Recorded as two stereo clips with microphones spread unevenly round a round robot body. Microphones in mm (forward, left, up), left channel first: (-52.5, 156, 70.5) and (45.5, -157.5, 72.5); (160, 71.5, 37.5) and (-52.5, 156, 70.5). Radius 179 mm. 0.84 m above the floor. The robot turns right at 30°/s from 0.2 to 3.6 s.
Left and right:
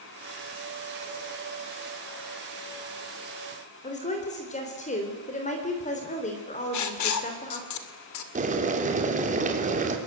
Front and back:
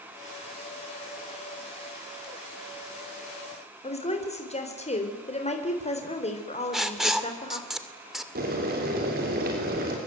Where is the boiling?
140° right, 3.5 m.